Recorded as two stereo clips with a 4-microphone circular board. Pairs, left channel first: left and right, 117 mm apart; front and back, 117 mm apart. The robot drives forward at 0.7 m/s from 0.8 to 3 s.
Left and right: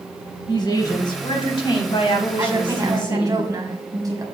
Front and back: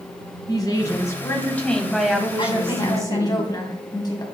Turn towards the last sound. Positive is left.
turn(degrees=-45)